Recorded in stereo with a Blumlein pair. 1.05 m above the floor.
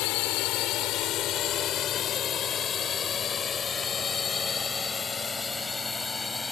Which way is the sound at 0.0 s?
40° left.